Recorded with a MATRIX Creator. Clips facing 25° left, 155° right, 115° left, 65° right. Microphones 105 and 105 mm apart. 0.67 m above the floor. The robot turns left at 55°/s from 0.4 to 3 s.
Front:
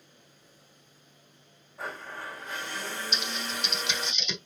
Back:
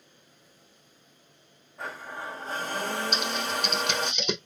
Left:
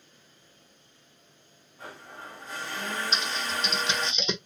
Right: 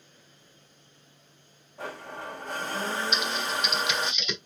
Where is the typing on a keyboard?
170° left, 0.9 m.